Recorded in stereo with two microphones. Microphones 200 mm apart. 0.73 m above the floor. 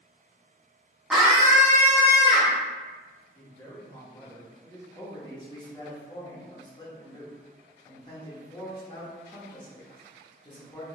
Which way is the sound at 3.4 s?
15° left (ahead or behind).